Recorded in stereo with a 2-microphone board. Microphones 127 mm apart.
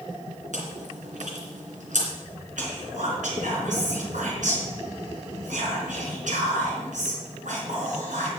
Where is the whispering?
75° right (ahead or behind), 4.5 m.